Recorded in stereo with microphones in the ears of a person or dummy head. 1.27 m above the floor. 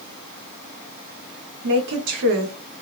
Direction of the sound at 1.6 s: 65° right (ahead or behind).